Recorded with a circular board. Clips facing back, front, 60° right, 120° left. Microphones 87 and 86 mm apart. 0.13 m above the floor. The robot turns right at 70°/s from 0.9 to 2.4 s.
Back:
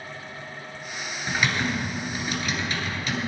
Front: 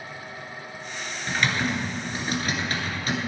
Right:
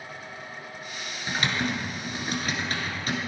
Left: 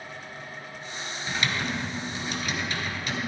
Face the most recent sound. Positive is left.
turn(degrees=-30)